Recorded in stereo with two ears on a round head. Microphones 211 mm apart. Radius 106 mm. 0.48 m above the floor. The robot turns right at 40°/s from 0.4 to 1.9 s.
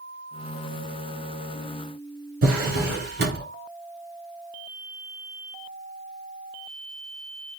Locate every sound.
2.4 s a drawer: 40° right (ahead or behind), 3 m